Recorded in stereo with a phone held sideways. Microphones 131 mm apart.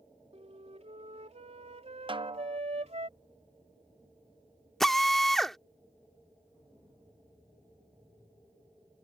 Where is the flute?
60° right (ahead or behind).